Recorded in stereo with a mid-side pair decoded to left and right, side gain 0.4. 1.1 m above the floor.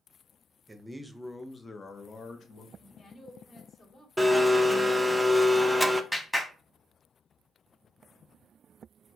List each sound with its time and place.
0.7 s a man speaking: 20° right, 0.7 m; by 2.7 s 70° left, 1.0 m
2.8 s a woman speaking: 40° left, 1.9 m
4.2 s a blender: straight ahead, 0.5 m
6.1 s a clap: 5° left, 1.3 m